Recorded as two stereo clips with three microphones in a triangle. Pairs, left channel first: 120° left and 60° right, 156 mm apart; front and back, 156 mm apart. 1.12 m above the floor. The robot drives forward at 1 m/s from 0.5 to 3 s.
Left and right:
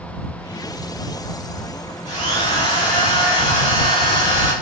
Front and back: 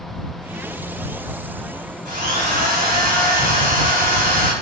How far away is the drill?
About 4.5 m.